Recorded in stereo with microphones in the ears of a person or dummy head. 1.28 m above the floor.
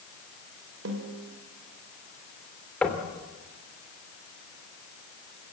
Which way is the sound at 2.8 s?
10° left (ahead or behind).